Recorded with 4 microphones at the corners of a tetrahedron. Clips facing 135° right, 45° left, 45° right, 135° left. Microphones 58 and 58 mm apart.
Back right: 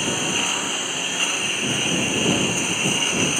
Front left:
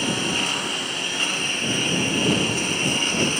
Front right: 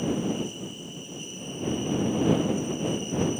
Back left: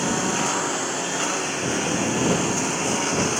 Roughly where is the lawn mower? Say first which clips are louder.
Even, back left 5 dB; behind left.